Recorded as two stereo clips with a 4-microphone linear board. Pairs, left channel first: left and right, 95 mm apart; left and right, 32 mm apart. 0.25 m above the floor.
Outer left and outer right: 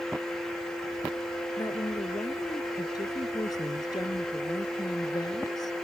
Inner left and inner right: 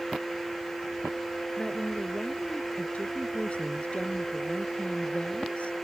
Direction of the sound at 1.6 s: 40° left (ahead or behind).